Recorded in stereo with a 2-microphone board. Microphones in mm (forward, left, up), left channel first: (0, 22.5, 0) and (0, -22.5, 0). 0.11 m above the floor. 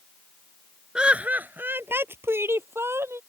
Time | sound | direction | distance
0.9 | laughter | 20° right (ahead or behind) | ?